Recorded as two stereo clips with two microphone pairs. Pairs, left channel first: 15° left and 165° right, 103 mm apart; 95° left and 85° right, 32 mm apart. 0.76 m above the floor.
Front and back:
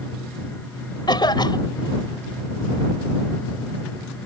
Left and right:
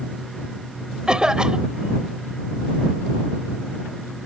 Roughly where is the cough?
Ahead right.